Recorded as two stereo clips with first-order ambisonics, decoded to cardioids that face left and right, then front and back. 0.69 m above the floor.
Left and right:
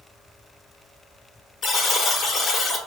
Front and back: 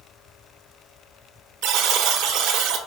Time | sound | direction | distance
1.6 | a buzzer | 155° left | 0.9 m